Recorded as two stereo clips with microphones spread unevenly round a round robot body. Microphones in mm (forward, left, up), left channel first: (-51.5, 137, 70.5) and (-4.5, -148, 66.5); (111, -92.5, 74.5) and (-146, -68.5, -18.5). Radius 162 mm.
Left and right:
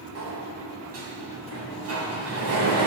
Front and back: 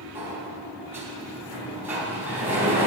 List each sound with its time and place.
0.1 s a sliding door: 115° right, 3.5 m